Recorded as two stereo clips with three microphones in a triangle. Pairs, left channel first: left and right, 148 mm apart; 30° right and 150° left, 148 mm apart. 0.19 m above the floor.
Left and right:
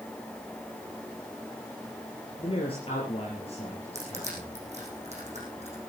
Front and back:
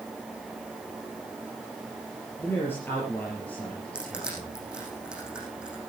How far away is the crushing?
About 7 m.